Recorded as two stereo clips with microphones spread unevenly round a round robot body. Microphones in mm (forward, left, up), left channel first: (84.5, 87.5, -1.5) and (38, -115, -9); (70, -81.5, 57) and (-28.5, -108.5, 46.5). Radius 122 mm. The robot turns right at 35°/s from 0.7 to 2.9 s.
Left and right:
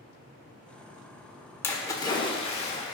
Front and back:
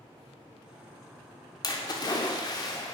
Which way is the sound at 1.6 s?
5° left.